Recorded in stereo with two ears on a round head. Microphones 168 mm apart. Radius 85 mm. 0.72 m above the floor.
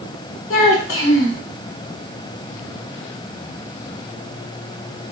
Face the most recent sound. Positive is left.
turn(degrees=75)  # may be behind; listen again after turning